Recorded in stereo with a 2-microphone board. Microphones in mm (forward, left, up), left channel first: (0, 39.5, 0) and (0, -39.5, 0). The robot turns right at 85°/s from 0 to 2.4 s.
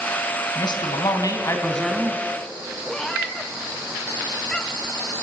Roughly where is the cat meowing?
Centre.